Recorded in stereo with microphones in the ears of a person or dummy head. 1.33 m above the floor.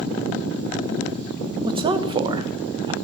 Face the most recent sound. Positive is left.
turn(degrees=-30)  # may be behind; listen again after turning